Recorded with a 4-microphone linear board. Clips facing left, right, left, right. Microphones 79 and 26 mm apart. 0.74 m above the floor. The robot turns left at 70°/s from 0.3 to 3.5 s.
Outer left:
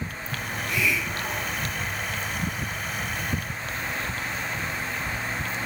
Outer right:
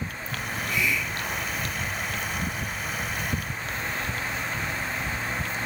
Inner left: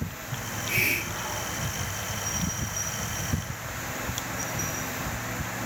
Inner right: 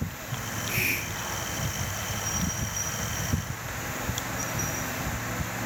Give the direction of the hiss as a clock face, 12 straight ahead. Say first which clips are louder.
Outer left 1 dB, inner left 2 dB; 8 o'clock.